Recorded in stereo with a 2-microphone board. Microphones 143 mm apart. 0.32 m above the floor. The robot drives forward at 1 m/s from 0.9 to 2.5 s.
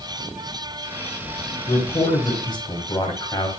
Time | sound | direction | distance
1.7 | a man speaking | 40° left (ahead or behind) | 1.7 m